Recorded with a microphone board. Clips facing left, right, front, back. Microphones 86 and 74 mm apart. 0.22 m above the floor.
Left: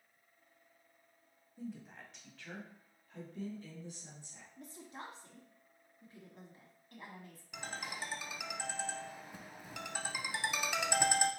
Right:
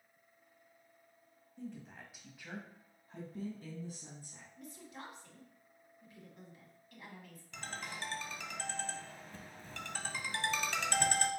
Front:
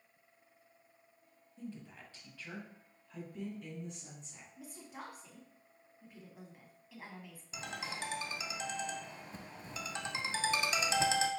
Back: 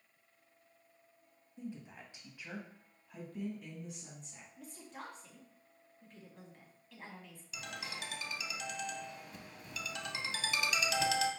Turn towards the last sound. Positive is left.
turn(degrees=20)